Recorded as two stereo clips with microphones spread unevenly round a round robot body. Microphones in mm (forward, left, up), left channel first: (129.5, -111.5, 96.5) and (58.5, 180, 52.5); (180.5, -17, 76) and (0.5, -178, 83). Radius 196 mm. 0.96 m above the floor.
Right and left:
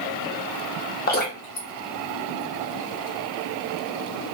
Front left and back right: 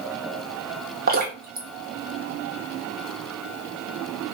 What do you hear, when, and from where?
1.1 s dripping: 125° right, 1.0 m